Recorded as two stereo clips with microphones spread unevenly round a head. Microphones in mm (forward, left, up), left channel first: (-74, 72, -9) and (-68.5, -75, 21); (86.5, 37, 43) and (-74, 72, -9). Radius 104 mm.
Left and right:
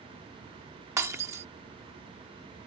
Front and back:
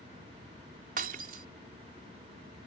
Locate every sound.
1.0 s breaking glass: 140° right